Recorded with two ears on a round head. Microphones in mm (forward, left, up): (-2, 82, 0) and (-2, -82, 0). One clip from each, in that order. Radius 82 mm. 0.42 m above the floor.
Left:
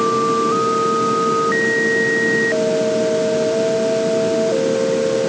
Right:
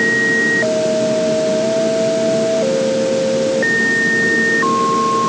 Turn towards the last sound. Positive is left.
No sound to turn to.